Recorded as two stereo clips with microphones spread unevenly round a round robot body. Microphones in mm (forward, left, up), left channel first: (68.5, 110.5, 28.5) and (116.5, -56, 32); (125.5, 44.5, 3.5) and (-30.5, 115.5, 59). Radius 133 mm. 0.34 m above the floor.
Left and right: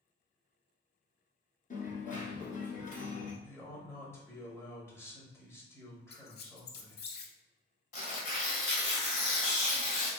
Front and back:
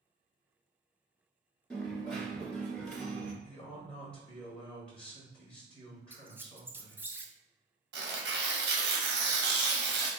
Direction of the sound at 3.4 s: 40° left.